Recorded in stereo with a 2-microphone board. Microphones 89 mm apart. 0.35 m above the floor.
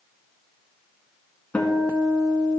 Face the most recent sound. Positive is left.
turn(degrees=15)  # may be behind; listen again after turning